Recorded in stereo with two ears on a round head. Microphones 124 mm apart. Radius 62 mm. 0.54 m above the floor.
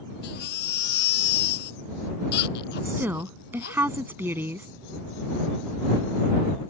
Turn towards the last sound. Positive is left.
turn(degrees=-15)  # may be behind; listen again after turning